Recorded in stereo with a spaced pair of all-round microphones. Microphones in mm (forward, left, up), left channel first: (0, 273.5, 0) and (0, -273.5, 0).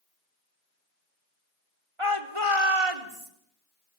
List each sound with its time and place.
2.0 s a shout: 60° right (ahead or behind), 3 m; by 3.3 s 75° right (ahead or behind), 3.5 m